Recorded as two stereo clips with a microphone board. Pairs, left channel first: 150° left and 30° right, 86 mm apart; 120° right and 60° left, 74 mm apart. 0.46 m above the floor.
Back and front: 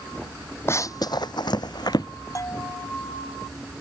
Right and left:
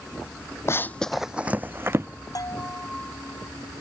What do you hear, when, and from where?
0.7 s running footsteps: 160° right; by 2.1 s 115° left
2.4 s a bell: 160° right